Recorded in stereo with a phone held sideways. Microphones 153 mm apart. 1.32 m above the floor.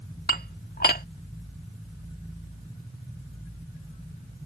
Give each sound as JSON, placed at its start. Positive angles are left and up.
{"t": 0.3, "sound": "dishes clattering", "side_deg": 80}